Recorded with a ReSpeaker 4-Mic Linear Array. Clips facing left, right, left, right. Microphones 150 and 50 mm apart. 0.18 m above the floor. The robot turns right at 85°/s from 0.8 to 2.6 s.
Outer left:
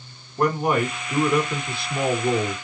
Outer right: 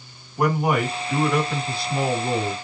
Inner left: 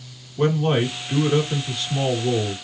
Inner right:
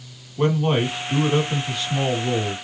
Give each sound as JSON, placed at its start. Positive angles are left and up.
{"t": 0.4, "sound": "a man speaking", "azimuth_deg": -155, "distance_m": 1.7}